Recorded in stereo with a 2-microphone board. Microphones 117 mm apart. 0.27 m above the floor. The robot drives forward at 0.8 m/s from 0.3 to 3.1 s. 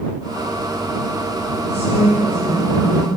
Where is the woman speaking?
60° left (ahead or behind), 10 m; by 3.1 s 55° left (ahead or behind), 10.5 m.